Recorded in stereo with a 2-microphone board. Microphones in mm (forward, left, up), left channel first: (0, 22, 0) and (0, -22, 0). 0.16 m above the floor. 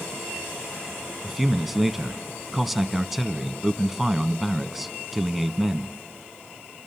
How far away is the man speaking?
About 1.0 m.